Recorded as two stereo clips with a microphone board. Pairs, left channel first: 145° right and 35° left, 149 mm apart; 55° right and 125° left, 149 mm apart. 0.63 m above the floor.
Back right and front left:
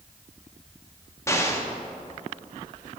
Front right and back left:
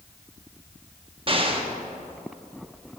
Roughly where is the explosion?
Behind left.